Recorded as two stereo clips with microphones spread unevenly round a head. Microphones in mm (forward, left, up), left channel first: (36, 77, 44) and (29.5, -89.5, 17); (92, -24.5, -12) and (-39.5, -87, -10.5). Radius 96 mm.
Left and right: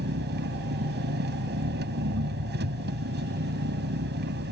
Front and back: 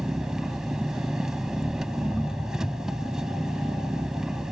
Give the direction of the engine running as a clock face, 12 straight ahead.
2 o'clock.